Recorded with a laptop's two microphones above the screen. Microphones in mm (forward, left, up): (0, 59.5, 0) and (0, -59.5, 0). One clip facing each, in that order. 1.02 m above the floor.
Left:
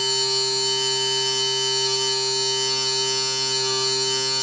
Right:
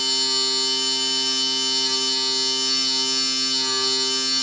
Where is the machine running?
40° left (ahead or behind), 1.3 m.